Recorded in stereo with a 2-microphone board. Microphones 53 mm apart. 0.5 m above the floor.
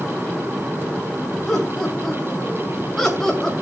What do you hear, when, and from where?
1.5 s laughter: 5° left (ahead or behind), 4 m; by 3.5 s 10° left (ahead or behind), 2.5 m